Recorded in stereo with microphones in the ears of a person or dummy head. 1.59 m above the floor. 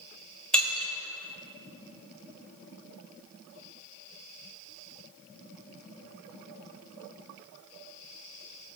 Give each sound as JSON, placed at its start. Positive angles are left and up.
{"t": 0.5, "sound": "breaking glass", "side_deg": 5, "distance_m": 2.0}